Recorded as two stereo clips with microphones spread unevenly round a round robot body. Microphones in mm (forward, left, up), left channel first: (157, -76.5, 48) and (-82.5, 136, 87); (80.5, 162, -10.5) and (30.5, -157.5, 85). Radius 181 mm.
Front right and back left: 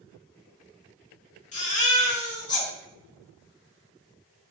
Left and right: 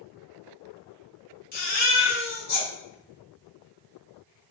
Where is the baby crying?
25° left, 1.4 m.